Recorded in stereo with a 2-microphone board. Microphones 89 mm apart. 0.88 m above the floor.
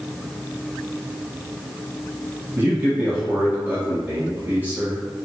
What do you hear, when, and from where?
2.6 s a man speaking: 20° right (ahead or behind), 1.3 m